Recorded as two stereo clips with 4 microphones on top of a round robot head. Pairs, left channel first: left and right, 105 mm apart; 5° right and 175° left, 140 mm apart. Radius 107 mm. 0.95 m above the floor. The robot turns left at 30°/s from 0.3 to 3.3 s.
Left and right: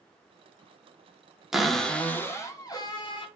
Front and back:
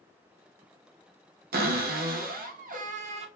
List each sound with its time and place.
1.5 s a cupboard door: 175° right, 0.6 m; by 3.3 s 130° left, 0.6 m